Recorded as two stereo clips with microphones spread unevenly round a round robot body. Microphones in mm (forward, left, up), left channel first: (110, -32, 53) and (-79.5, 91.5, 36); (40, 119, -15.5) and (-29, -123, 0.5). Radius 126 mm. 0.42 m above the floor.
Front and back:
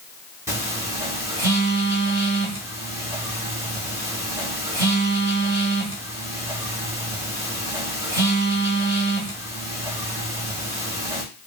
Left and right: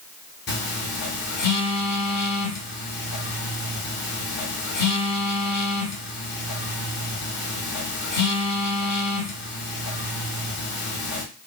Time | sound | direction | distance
0.5 | a phone buzzing | 80° left | 1.2 m